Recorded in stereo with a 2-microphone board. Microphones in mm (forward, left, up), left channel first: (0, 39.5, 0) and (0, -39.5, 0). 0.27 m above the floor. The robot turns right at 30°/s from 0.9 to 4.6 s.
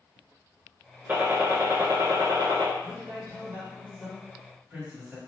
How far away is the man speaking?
About 1.9 m.